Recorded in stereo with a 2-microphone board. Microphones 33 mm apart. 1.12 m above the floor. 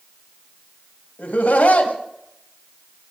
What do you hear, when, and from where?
1.2 s laughter: 75° left (ahead or behind), 1.8 m